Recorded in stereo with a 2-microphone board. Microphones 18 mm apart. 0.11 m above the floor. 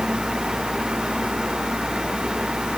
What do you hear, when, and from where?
Only background noise.